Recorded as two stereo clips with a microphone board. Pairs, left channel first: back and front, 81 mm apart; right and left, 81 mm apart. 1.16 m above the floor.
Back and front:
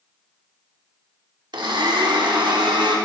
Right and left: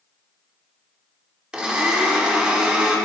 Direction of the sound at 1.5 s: 15° left.